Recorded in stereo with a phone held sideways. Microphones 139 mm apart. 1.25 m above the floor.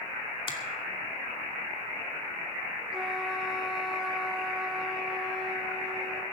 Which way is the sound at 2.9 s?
5° right (ahead or behind).